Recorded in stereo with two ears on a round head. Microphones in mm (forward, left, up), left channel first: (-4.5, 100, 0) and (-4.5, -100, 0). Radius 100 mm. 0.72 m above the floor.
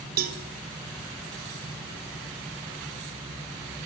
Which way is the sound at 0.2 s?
40° right (ahead or behind).